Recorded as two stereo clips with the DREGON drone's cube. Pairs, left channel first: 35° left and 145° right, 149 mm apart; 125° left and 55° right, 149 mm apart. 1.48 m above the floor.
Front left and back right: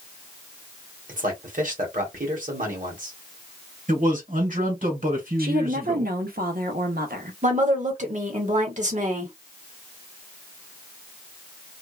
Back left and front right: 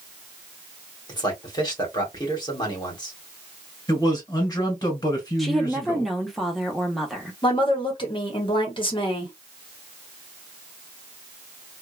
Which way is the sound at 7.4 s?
Straight behind.